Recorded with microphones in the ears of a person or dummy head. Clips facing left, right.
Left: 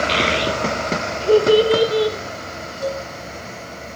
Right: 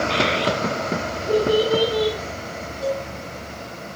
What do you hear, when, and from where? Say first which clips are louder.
0.1 s a child speaking: left 1 dB; 45° left (ahead or behind), 1.1 m; by 2.2 s 30° left (ahead or behind), 1.1 m
2.8 s a cowbell: even; 35° left (ahead or behind), 3.5 m